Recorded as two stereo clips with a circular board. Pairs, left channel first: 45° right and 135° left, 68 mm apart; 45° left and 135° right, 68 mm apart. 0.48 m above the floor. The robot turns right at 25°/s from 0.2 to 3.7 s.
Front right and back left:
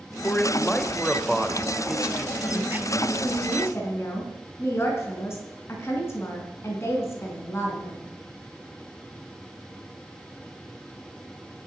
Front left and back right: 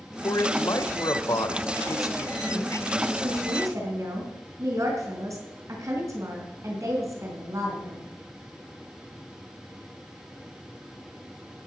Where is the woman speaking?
110° right, 4.5 m; by 8.0 s 95° right, 4.5 m.